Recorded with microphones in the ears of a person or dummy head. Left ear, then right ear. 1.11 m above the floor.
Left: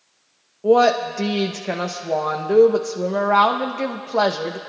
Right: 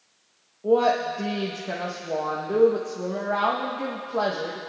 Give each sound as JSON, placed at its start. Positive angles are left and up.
{"t": 0.6, "sound": "a woman speaking", "side_deg": 75, "distance_m": 0.7}